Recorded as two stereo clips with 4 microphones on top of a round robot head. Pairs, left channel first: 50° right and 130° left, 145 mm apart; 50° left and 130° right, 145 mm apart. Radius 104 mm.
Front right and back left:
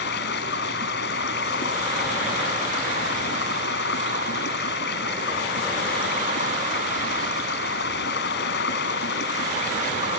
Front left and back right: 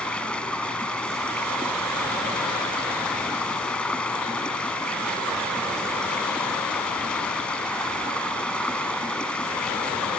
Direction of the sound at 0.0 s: 35° right.